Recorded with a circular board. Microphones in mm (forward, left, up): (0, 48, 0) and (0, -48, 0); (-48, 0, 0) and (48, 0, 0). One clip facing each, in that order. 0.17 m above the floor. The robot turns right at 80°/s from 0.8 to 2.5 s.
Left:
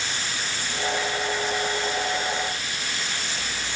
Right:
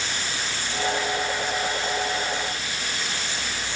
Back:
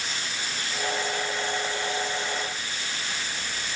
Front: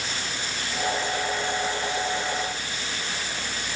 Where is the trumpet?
No trumpet in this recording.